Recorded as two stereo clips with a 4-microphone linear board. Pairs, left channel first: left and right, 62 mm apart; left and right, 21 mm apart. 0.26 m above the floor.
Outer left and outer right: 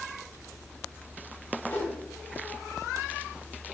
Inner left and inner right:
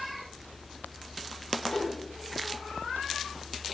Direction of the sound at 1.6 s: 30° left (ahead or behind).